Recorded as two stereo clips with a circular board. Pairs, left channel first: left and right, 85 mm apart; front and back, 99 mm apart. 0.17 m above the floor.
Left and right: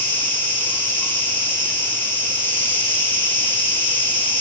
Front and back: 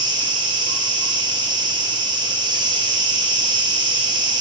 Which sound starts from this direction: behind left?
An insect, at 0.0 s.